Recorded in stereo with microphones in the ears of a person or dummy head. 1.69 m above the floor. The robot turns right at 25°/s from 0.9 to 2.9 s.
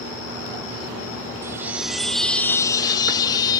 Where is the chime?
15° right; by 3.6 s 20° left.